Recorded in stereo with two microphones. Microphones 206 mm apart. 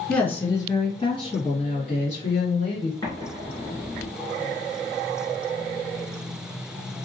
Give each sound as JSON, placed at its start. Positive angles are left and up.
{"t": 0.1, "sound": "a woman speaking", "side_deg": 5, "distance_m": 1.4}
{"t": 3.0, "sound": "an explosion", "side_deg": 20, "distance_m": 1.6}